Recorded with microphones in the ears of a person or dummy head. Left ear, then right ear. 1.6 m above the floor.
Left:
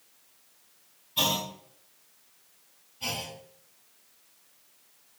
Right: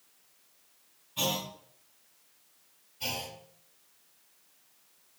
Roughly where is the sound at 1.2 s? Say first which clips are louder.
Left 5 dB; centre.